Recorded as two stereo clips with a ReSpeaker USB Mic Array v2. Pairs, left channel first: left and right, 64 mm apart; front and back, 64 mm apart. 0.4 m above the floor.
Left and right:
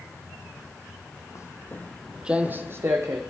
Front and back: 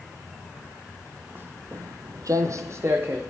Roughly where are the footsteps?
Behind left.